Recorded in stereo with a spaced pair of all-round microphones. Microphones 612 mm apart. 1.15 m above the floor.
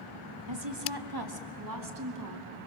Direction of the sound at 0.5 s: 45° right (ahead or behind).